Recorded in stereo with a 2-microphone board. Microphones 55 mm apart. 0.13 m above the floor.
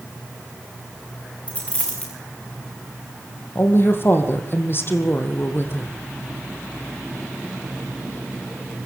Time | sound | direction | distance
1.5 | a dropped coin | 25° left (ahead or behind) | 6.5 m
3.5 | a woman speaking | 45° left (ahead or behind) | 4.5 m